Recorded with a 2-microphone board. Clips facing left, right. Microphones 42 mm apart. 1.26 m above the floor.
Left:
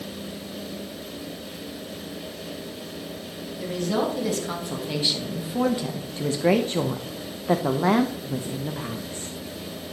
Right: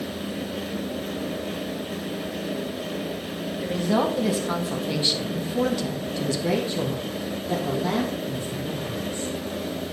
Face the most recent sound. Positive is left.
turn(degrees=65)  # may be behind; listen again after turning